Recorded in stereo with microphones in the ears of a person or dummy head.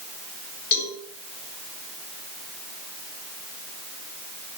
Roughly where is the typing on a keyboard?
No typing on a keyboard in this recording.